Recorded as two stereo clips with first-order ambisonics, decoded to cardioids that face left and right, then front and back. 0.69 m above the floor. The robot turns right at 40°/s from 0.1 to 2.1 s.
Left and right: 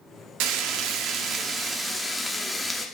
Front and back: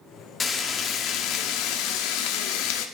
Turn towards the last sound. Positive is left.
turn(degrees=0)